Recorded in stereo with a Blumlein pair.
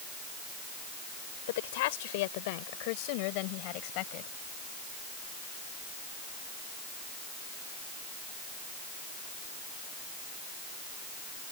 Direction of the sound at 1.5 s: 55° left.